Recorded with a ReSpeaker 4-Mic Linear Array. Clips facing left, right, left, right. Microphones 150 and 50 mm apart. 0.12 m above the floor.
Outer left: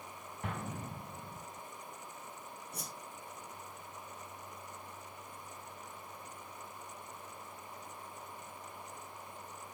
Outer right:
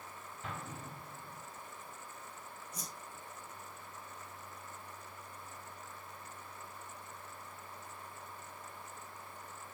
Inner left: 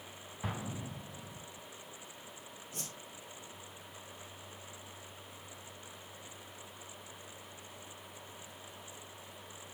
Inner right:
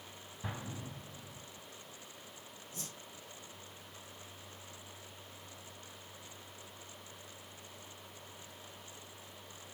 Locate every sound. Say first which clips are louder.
0.4 s an explosion: outer left 4 dB, inner left 3 dB; 65° left (ahead or behind), 1.9 m
2.7 s a whoosh: outer left 1 dB, inner left 2 dB; 65° left (ahead or behind), 2.5 m